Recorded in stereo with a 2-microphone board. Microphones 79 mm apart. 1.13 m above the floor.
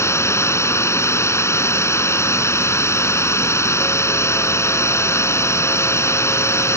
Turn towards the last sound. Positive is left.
turn(degrees=35)  # may be behind; listen again after turning